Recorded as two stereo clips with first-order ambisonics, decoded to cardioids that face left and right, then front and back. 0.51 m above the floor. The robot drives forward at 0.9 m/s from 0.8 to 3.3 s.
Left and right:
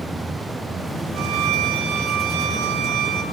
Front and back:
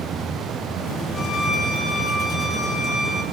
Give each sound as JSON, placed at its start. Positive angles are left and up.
{"t": 1.1, "sound": "a violin", "azimuth_deg": -75, "distance_m": 10.0}